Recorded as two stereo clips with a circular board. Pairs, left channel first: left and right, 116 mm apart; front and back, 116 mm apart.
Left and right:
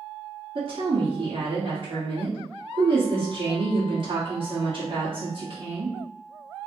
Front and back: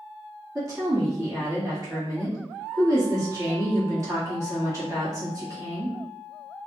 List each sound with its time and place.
0.6 s a woman speaking: 120° right, 1.3 m